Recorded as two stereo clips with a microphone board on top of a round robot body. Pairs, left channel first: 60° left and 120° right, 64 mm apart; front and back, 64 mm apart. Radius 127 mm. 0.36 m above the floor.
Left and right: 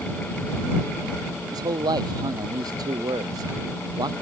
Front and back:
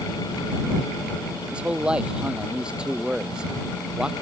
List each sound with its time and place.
1.5 s a man speaking: 105° right; by 4.1 s 100° right